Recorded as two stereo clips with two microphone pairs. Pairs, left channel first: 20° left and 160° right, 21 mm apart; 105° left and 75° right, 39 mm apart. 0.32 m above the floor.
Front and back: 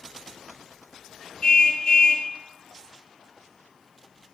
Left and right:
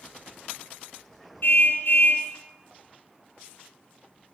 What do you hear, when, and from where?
1.4 s a car horn: 70° left, 2.5 m